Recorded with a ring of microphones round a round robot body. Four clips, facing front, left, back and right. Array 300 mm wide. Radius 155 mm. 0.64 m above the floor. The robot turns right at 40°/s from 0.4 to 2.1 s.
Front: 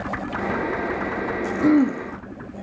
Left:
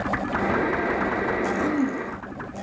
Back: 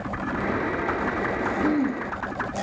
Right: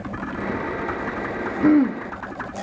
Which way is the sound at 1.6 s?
55° right.